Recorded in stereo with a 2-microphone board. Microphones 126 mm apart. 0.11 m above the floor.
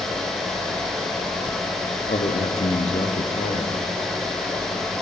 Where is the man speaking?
60° left (ahead or behind), 3 m.